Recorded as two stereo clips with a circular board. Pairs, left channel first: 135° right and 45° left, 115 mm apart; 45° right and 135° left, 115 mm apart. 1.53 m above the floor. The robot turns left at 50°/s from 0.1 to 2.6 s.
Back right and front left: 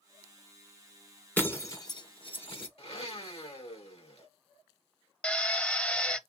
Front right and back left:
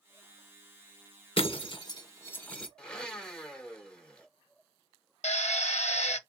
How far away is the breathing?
No breathing in this recording.